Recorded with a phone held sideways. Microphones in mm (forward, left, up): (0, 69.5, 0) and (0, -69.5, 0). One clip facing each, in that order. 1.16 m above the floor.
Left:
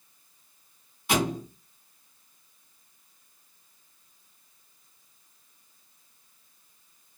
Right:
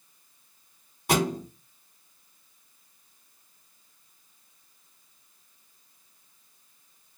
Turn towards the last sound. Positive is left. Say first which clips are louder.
# right 1 dB
turn(degrees=-45)  # may be behind; listen again after turning